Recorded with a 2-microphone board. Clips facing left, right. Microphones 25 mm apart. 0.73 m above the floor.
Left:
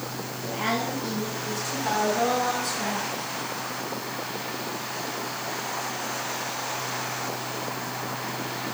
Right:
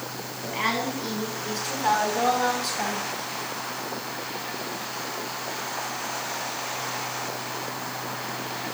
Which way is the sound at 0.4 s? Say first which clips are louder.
Right 1 dB; 50° right (ahead or behind).